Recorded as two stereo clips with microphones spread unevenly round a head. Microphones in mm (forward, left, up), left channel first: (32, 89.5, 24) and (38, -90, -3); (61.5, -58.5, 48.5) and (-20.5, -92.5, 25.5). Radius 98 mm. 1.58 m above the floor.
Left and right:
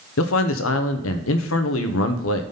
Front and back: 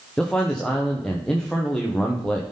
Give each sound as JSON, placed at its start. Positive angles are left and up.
{"t": 0.2, "sound": "a man speaking", "azimuth_deg": 105, "distance_m": 0.9}